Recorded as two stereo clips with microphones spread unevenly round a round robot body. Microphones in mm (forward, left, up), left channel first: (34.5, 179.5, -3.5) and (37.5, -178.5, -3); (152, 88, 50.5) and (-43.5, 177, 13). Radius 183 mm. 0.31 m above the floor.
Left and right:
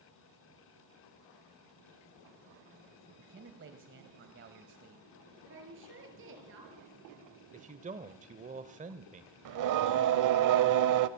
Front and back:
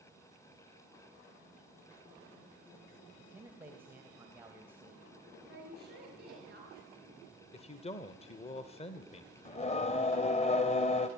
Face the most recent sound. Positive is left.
turn(degrees=-90)